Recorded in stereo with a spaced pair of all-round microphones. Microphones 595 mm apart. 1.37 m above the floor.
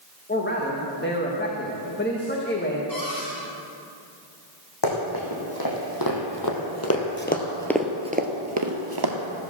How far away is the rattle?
No rattle in this recording.